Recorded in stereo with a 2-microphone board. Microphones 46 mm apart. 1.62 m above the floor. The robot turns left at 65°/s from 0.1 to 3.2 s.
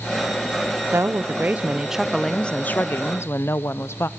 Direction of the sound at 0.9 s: 100° right.